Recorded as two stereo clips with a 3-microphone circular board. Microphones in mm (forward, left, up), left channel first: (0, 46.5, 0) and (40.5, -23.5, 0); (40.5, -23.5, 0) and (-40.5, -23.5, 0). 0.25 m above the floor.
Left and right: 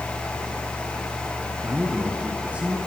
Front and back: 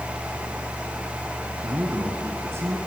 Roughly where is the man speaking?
Behind right.